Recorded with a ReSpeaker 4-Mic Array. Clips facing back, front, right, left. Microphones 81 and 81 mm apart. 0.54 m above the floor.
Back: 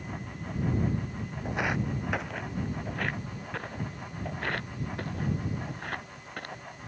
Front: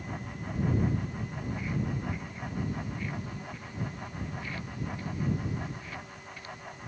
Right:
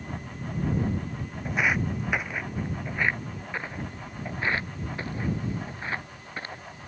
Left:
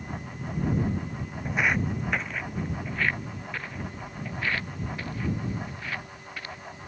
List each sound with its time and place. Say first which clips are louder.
1.4 s footsteps: back 5 dB, even; straight behind; by 6.6 s 150° right